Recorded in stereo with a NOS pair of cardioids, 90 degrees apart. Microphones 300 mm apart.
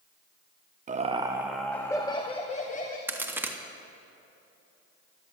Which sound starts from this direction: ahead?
A crack, at 3.1 s.